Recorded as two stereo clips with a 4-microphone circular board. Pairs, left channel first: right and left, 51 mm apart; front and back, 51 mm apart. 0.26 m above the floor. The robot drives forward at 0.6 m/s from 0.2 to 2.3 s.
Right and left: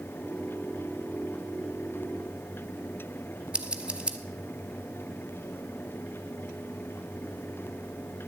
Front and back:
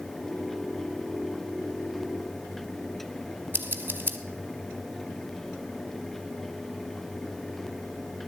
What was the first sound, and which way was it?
Scissors, 155° left.